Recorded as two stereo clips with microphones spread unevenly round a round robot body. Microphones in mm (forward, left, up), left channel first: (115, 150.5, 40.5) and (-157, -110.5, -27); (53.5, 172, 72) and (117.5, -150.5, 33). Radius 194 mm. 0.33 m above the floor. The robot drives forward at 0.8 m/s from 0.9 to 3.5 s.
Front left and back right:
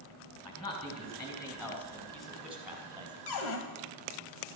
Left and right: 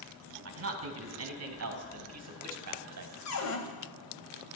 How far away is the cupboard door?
About 2.5 m.